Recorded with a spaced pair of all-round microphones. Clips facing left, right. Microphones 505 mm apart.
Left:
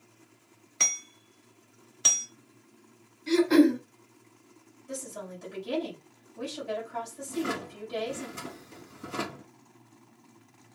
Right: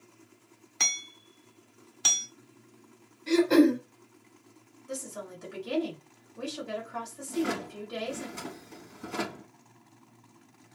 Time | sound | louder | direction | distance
0.8 | hammering | left 1 dB | 10° right (ahead or behind) | 0.8 m
3.3 | throat clearing | even | centre (ahead or behind) | 1.4 m
4.9 | a woman speaking | even | centre (ahead or behind) | 3 m
7.3 | a drawer | right 2 dB | 10° right (ahead or behind) | 0.9 m